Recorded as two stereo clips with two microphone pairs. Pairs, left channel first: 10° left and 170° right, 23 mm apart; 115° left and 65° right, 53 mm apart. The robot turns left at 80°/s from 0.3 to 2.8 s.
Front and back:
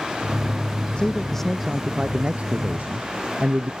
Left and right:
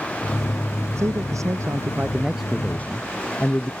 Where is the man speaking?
40° right; by 3.7 s 175° left.